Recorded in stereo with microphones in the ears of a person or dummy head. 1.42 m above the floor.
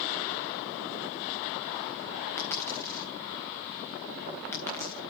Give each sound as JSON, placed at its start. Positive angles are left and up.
{"t": 2.4, "sound": "a dropped coin", "side_deg": 20, "distance_m": 3.5}